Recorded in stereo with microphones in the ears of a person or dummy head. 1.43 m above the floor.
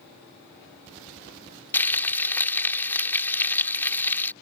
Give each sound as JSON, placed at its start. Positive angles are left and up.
{"t": 1.7, "sound": "frying", "side_deg": 10}